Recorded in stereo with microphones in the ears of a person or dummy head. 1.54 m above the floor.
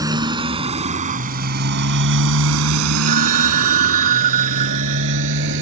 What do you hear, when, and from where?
0.0 s a motorcycle: 20° right (ahead or behind); by 5.6 s 60° right (ahead or behind)
3.1 s a phone ringing: 40° right (ahead or behind)